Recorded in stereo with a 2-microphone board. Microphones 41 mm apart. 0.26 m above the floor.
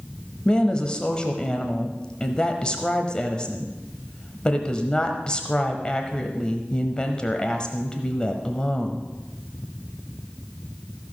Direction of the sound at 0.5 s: 20° left (ahead or behind).